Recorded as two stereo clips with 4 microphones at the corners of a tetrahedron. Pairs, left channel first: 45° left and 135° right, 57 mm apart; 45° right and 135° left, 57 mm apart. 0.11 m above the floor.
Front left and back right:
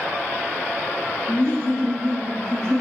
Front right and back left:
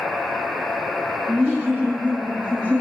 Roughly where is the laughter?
Left.